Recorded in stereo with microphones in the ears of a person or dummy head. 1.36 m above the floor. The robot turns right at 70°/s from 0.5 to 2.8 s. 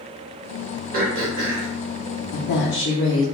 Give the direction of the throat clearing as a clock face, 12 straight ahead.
4 o'clock.